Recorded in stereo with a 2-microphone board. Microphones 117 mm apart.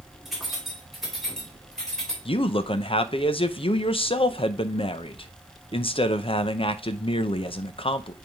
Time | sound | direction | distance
0.2 | keys jangling | 5° right (ahead or behind) | 2.5 m
2.2 | a man speaking | 50° left (ahead or behind) | 0.6 m